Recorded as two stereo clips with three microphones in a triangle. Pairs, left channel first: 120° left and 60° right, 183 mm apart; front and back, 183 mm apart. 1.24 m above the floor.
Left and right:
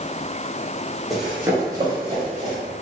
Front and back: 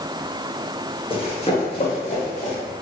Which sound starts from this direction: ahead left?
Running footsteps, at 1.1 s.